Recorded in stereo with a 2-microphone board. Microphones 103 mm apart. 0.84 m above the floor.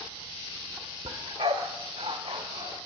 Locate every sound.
1.1 s a dog barking: 75° right (ahead or behind), 1.2 m